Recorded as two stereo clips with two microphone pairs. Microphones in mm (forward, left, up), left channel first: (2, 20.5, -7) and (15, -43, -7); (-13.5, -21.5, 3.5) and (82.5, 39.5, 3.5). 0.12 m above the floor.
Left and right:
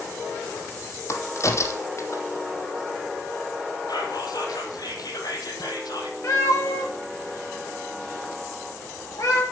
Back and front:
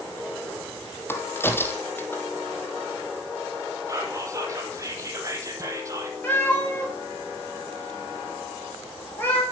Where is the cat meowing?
140° left, 7.5 m.